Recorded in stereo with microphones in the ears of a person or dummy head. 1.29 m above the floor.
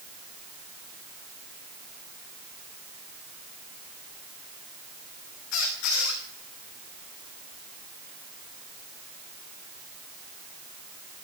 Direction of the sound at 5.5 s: 70° left (ahead or behind).